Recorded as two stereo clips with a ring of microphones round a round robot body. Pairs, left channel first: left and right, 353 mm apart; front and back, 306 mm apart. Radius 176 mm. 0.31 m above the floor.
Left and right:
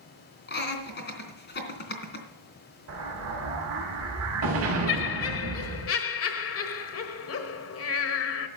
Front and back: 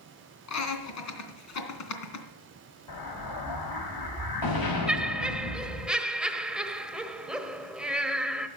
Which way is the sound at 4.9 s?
95° left.